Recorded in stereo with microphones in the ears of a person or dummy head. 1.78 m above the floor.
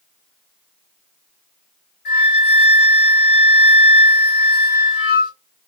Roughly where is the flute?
Left.